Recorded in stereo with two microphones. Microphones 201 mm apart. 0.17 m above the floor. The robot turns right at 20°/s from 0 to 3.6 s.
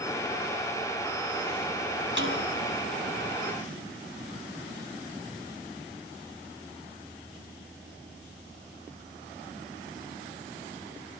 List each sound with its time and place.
2.2 s a snare drum: 65° right (ahead or behind), 4.5 m; by 2.4 s 60° right (ahead or behind), 4.5 m